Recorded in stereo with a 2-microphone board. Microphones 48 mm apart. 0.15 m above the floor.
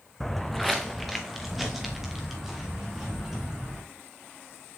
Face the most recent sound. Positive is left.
turn(degrees=-5)  # may be behind; listen again after turning